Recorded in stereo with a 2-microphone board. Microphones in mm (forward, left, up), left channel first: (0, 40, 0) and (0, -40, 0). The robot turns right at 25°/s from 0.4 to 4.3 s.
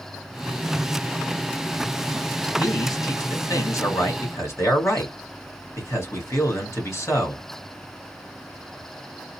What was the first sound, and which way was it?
A man speaking, 90° left.